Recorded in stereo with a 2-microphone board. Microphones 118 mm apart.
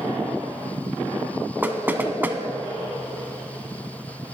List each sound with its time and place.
1.6 s knocking: 15° right (ahead or behind), 0.8 m